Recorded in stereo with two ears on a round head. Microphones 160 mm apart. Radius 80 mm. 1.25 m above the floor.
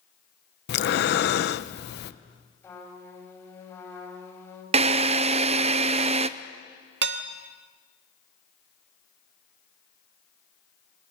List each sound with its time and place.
0.7 s breathing: 60° left (ahead or behind), 0.7 m
2.6 s a trumpet: 15° left (ahead or behind), 5 m
4.7 s a drill: 35° right (ahead or behind), 0.7 m
7.0 s dishes clattering: 65° right (ahead or behind), 1.2 m